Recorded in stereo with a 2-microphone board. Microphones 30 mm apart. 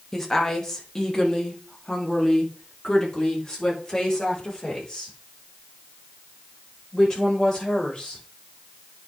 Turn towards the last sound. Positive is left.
turn(degrees=25)  # may be behind; listen again after turning